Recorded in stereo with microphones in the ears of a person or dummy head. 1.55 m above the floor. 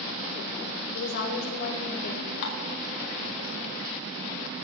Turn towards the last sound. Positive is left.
turn(degrees=60)  # may be behind; listen again after turning